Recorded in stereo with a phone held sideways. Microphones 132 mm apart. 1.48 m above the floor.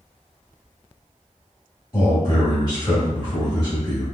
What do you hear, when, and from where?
1.9 s a man speaking: 35° left (ahead or behind), 1.9 m